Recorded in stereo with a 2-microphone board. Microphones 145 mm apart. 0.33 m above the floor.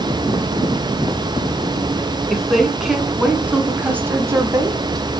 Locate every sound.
2.3 s a woman speaking: centre (ahead or behind), 3 m; by 5.1 s 30° right (ahead or behind), 1.7 m